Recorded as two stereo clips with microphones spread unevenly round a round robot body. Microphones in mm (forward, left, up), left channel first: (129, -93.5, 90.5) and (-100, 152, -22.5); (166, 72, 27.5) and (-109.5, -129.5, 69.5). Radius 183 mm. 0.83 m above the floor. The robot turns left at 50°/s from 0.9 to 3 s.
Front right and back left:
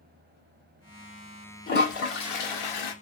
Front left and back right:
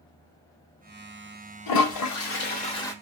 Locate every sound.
1.7 s a toilet flushing: 15° left, 1.2 m; by 2.9 s 50° right, 1.2 m